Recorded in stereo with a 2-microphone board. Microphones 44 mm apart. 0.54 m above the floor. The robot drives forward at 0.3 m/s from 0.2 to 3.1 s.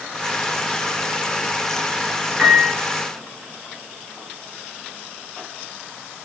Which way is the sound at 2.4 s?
25° right (ahead or behind).